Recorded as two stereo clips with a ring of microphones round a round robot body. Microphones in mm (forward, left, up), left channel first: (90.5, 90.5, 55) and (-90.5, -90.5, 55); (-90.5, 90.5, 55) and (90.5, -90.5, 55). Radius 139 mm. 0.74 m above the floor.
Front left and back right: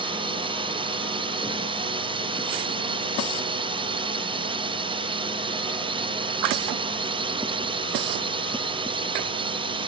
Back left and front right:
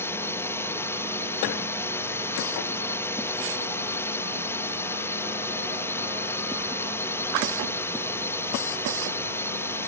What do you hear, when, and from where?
0.0 s a drone: 160° right